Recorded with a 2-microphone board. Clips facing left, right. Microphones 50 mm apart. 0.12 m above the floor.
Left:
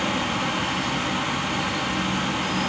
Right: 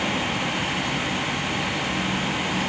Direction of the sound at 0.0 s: 20° right (ahead or behind).